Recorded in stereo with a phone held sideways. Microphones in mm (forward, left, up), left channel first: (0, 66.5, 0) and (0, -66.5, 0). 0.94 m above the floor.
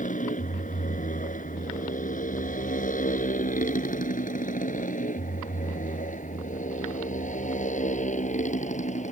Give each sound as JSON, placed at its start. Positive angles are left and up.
{"t": 0.0, "sound": "a motorcycle", "side_deg": 75}